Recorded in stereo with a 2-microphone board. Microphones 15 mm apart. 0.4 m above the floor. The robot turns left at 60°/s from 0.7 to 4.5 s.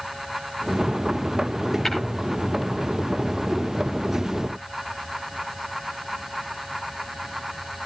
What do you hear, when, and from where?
1.9 s tapping: 30° left (ahead or behind), 7.5 m; by 2.0 s 20° left (ahead or behind), 7.5 m